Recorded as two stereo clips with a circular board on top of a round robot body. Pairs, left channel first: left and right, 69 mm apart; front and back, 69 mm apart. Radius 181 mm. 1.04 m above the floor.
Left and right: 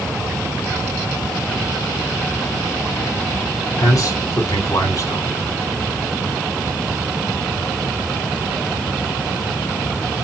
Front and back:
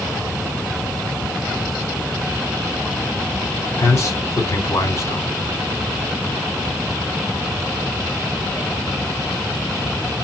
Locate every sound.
3.8 s a man speaking: 45° left, 3.5 m